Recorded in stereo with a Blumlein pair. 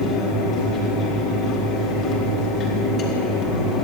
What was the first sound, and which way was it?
A fan, 30° left.